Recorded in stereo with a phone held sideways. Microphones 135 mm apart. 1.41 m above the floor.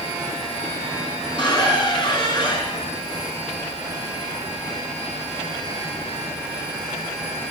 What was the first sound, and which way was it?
A squeak, 40° left (ahead or behind).